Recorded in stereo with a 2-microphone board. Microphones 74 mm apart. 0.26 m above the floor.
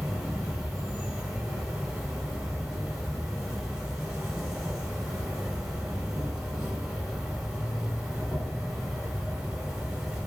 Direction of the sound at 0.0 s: 10° right (ahead or behind).